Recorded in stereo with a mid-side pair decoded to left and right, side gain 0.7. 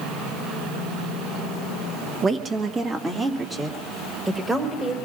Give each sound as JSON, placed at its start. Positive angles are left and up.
{"t": 2.2, "sound": "a woman speaking", "azimuth_deg": -25, "distance_m": 1.1}